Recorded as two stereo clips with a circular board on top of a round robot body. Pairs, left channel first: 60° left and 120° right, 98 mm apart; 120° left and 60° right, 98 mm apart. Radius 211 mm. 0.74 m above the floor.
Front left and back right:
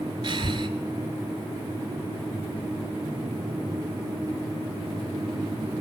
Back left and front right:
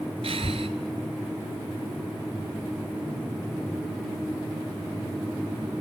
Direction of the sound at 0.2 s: 85° right.